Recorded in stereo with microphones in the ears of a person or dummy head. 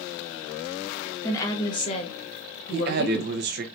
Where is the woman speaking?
15° left (ahead or behind), 1.1 m; by 3.4 s 65° left (ahead or behind), 1.5 m.